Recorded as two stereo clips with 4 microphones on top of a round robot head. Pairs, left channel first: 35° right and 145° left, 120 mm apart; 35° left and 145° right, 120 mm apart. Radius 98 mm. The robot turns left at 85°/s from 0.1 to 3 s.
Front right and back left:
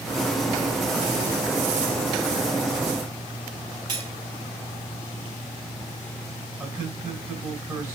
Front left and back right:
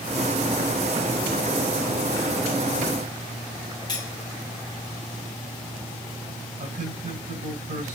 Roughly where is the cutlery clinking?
Left.